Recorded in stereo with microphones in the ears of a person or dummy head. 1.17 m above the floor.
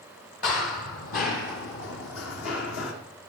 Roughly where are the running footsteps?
Left.